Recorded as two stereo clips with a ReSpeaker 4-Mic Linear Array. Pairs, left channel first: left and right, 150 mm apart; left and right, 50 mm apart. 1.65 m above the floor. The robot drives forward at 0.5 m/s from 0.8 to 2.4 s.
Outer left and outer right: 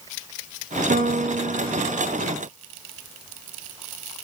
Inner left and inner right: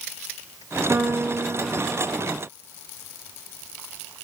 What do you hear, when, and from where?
0.9 s a piano: 65° right (ahead or behind), 0.7 m; by 2.2 s 35° right (ahead or behind), 1.1 m